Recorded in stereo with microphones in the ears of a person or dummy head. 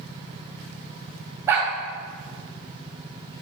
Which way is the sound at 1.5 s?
15° right (ahead or behind).